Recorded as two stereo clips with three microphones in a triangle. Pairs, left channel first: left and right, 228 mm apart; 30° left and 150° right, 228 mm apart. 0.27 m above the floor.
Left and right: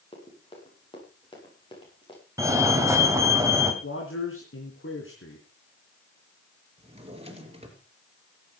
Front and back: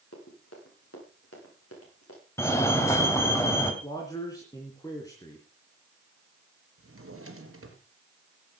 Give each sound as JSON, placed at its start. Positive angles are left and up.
{"t": 0.1, "sound": "running footsteps", "azimuth_deg": 25, "distance_m": 7.0}
{"t": 2.4, "sound": "a fire alarm", "azimuth_deg": -30, "distance_m": 2.0}
{"t": 3.8, "sound": "a man speaking", "azimuth_deg": 105, "distance_m": 2.5}
{"t": 6.8, "sound": "a drawer", "azimuth_deg": -155, "distance_m": 3.0}